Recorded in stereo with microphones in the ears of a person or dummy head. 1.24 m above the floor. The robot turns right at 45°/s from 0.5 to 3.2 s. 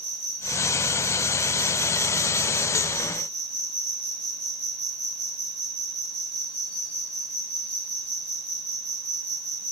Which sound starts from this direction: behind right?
An insect, at 0.0 s.